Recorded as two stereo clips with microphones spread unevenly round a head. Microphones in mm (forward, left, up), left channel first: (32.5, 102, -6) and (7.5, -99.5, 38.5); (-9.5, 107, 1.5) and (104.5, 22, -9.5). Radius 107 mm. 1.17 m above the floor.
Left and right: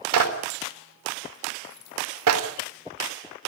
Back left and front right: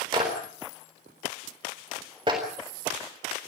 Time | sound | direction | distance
0.1 | a clap | 105° right | 4 m